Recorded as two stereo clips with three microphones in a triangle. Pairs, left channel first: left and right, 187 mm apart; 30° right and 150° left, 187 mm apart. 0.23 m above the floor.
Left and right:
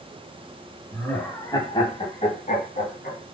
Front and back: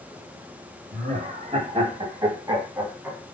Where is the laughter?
170° left, 1.4 m; by 3.2 s 70° left, 1.6 m.